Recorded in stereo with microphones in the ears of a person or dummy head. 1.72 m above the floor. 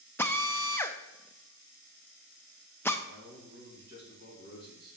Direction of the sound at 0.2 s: 15° left (ahead or behind).